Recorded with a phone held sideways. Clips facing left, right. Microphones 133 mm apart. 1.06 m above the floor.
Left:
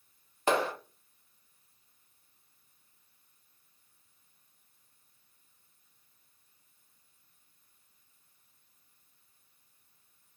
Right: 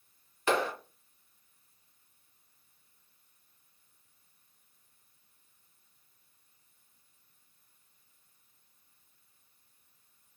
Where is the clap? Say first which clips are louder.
Left 1 dB; 35° left (ahead or behind), 1.4 m.